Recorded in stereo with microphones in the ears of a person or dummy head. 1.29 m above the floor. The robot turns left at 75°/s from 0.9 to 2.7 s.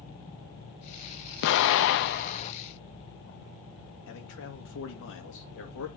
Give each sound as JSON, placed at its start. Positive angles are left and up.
{"t": 1.4, "sound": "an explosion", "azimuth_deg": 115, "distance_m": 0.8}
{"t": 4.1, "sound": "a man speaking", "side_deg": 70, "distance_m": 2.0}